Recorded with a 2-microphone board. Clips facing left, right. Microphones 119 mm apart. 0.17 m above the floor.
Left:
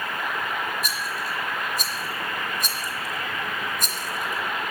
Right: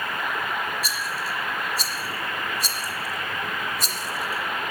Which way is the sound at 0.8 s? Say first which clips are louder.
Even; 50° left (ahead or behind).